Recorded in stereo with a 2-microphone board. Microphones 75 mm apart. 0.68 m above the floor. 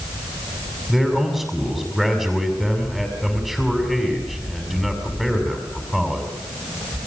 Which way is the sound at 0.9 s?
5° left (ahead or behind).